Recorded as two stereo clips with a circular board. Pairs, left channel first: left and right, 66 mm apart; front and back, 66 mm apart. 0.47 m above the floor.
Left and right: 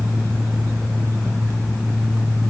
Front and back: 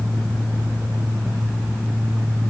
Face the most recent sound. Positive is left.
No sound to turn to.